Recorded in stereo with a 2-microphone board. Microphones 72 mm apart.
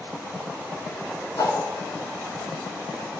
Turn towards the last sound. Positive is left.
turn(degrees=65)  # may be behind; listen again after turning